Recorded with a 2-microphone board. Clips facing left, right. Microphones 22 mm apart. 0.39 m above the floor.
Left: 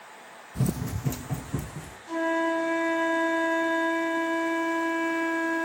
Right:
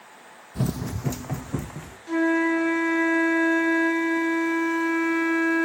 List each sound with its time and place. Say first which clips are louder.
0.6 s running footsteps: right 1 dB; 25° right (ahead or behind), 0.5 m; by 2.0 s 40° right (ahead or behind), 1.2 m
2.1 s a flute: right 4 dB; 75° right (ahead or behind), 3 m